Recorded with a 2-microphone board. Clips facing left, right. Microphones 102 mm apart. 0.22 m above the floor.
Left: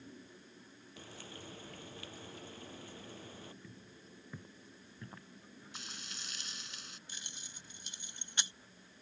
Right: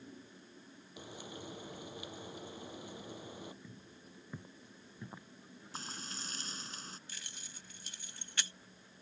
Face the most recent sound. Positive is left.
turn(degrees=20)  # may be behind; listen again after turning